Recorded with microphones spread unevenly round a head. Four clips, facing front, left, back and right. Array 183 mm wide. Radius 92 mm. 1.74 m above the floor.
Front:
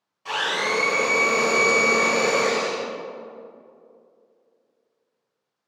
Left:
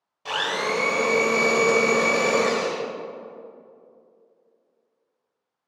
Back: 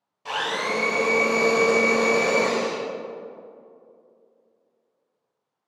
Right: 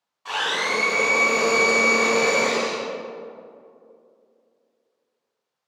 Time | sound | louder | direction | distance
0.2 | a blender | even, front 1 dB | 125° left | 1.8 m